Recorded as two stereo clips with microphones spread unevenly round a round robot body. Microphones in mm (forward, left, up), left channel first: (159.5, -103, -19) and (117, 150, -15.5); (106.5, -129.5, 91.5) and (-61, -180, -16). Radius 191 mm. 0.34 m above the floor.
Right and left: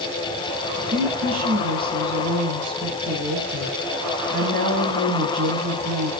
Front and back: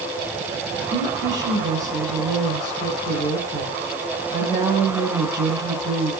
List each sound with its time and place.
0.8 s a woman speaking: 150° left, 2.5 m